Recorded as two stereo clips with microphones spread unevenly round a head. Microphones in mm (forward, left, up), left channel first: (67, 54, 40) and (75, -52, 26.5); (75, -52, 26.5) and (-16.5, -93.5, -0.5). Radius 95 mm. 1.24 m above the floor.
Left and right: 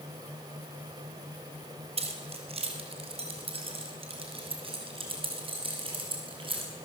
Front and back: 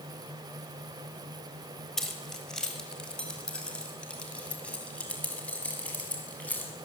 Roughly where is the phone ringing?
I don't hear a phone ringing.